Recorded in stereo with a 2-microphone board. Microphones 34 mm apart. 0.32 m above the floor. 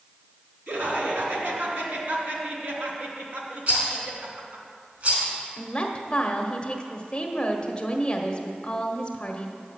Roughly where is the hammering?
I don't hear hammering.